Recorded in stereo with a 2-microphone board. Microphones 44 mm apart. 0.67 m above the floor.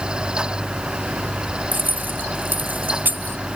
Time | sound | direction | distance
1.7 | keys jangling | 45° right (ahead or behind) | ?